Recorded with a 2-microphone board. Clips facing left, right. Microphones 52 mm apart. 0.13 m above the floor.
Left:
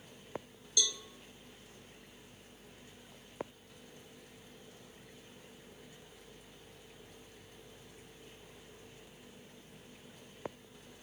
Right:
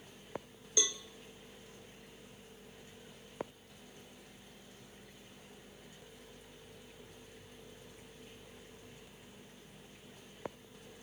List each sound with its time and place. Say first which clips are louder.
0.8 s a cowbell: even; 30° right (ahead or behind), 1.2 m